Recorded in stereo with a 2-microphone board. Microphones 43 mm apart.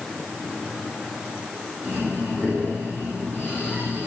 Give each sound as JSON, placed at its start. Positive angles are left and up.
{"t": 1.8, "sound": "breathing", "side_deg": 45, "distance_m": 4.0}